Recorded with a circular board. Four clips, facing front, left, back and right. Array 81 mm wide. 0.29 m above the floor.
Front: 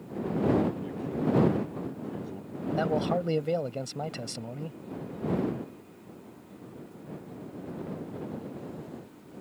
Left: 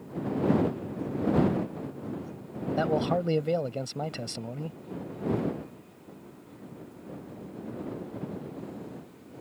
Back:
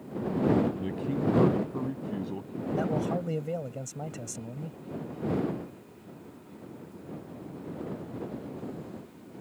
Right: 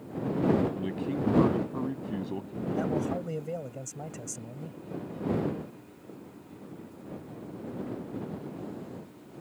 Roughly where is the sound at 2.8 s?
Ahead left.